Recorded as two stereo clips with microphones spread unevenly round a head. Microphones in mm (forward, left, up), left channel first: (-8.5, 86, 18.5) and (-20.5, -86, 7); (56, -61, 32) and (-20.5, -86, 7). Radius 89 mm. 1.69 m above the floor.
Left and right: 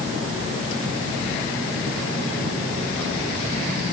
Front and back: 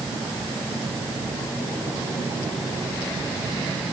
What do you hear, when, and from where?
Only background noise.